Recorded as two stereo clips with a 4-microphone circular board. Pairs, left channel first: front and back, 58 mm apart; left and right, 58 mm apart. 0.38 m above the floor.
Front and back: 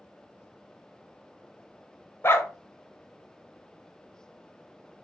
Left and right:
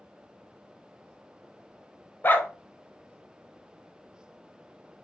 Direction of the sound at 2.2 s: 40° left.